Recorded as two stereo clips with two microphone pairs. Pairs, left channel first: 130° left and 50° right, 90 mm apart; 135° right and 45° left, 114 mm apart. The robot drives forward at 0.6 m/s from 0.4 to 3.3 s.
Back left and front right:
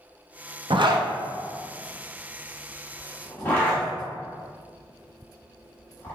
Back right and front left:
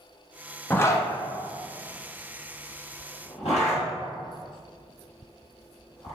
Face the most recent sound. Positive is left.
turn(degrees=-160)